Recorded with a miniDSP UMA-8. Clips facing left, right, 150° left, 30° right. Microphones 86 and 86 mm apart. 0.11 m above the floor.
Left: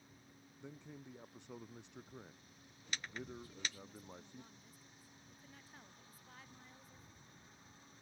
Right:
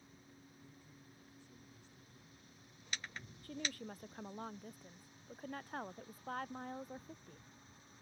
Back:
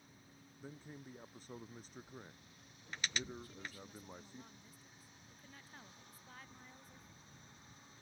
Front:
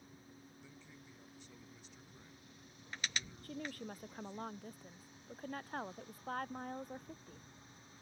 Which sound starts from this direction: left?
A man speaking, at 0.6 s.